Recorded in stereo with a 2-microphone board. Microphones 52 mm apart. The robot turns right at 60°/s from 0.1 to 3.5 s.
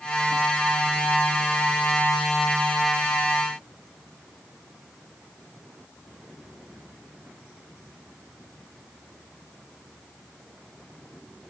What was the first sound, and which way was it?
Only background noise.